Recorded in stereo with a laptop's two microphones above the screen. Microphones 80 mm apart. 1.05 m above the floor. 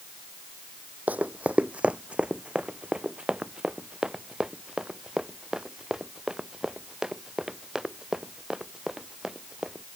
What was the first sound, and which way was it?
Running footsteps, 20° right (ahead or behind).